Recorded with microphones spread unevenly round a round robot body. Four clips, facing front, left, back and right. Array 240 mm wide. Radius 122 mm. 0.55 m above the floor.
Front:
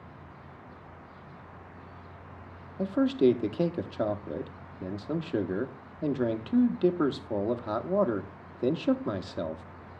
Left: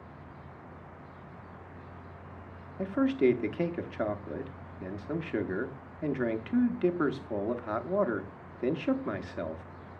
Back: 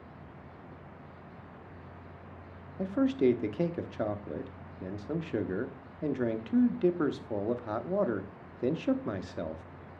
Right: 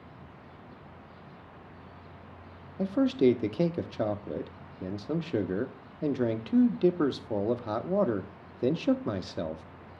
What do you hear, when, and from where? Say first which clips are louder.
2.8 s a man speaking: right 2 dB, front 3 dB; 65° right, 0.7 m